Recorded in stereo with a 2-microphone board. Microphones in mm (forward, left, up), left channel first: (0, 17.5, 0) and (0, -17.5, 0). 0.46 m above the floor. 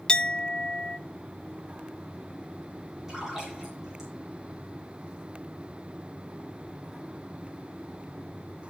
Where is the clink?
25° left (ahead or behind), 0.5 m.